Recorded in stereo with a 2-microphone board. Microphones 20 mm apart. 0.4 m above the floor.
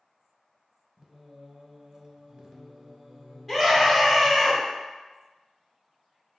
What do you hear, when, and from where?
1.0 s singing: 35° right (ahead or behind), 0.6 m
3.5 s a scream: 5° left (ahead or behind), 1.0 m